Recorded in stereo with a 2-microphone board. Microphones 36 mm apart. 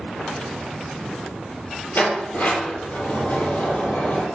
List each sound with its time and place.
1.9 s a sliding door: 55° left (ahead or behind), 3.5 m